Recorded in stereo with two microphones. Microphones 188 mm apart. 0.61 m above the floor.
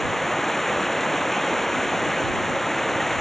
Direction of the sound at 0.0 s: Centre (ahead or behind).